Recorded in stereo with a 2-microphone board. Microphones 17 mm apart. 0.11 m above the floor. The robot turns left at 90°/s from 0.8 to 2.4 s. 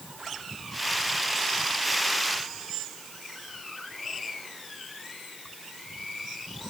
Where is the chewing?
I don't hear chewing.